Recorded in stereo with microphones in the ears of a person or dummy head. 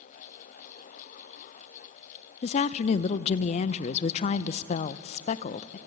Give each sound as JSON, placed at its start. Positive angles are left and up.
{"t": 2.4, "sound": "a woman speaking", "side_deg": 45, "distance_m": 0.7}